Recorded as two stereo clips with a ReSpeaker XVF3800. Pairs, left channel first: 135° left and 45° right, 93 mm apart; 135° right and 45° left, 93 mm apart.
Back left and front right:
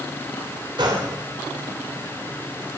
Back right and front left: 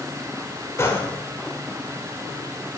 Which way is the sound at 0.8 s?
75° right.